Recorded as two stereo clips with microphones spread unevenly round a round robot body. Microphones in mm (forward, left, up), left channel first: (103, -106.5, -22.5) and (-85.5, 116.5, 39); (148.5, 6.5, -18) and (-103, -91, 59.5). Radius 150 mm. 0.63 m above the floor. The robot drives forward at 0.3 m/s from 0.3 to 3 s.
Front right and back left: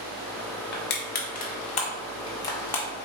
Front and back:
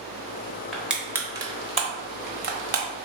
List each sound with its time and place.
0.7 s crushing: 50° right, 0.9 m; by 2.9 s 115° right, 0.9 m